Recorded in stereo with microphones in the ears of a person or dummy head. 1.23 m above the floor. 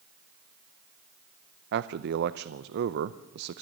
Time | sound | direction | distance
1.7 | a man speaking | 60° right (ahead or behind) | 0.6 m